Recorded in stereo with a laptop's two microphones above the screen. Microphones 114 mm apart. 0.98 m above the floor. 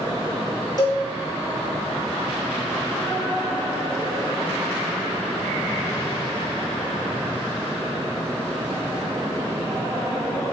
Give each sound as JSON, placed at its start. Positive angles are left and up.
{"t": 0.8, "sound": "a cowbell", "side_deg": 35, "distance_m": 1.3}